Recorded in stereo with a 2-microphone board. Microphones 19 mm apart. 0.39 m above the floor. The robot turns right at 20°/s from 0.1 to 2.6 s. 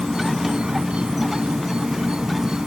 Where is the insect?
105° right; by 2.7 s 55° right.